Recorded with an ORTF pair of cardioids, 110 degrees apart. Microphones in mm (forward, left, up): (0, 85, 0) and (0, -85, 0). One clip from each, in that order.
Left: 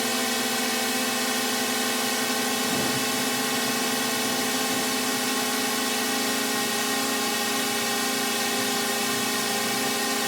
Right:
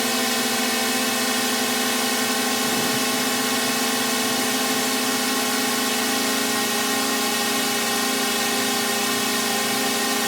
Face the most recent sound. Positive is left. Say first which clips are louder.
# right 3 dB
turn(degrees=-25)